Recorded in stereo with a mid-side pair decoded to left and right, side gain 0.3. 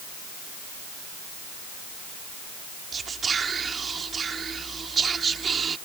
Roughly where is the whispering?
Ahead right.